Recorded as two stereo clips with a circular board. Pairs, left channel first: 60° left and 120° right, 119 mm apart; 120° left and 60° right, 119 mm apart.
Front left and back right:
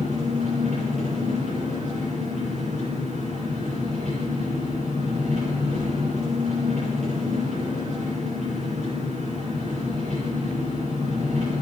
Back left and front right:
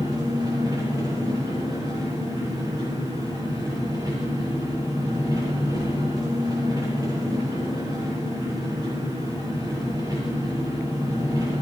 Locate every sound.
0.0 s an engine running: 115° right, 8 m